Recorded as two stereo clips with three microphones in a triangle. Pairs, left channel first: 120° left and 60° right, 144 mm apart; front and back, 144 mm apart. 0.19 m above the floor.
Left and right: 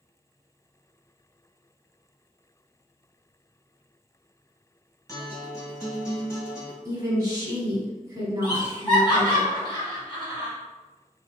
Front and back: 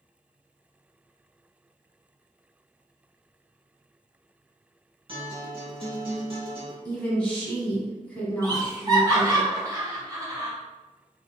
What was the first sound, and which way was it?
A guitar, 175° left.